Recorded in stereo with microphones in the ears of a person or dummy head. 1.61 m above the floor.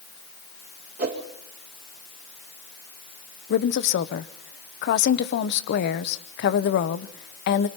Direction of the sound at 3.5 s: 60° left (ahead or behind).